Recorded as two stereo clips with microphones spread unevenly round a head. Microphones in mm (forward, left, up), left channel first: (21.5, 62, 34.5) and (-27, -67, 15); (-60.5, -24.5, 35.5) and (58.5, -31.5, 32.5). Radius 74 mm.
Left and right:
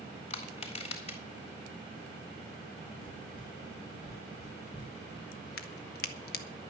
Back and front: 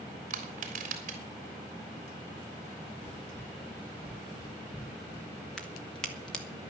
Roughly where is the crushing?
Ahead.